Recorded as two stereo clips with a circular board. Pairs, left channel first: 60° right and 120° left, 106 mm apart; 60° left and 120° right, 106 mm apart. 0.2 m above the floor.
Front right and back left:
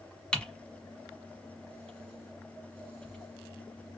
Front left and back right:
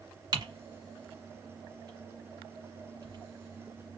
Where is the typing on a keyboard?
135° right, 1.1 m.